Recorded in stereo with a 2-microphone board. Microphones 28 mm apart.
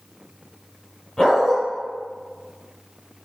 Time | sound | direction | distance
1.2 | a dog barking | centre (ahead or behind) | 2.5 m